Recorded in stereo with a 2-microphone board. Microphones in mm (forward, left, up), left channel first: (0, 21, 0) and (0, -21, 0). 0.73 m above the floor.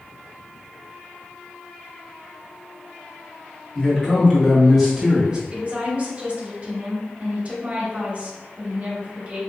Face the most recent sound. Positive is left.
turn(degrees=-30)  # may be behind; listen again after turning